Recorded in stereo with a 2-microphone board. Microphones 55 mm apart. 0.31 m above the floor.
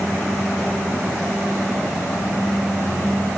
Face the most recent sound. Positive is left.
No sound to turn to.